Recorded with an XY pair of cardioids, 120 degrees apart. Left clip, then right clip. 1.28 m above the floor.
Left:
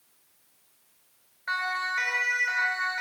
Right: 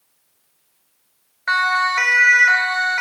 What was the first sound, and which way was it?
A siren, 60° right.